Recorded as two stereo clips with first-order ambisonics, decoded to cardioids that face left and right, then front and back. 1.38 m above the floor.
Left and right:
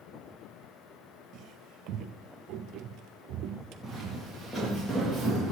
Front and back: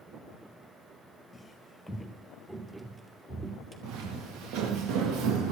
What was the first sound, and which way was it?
Footsteps, 75° right.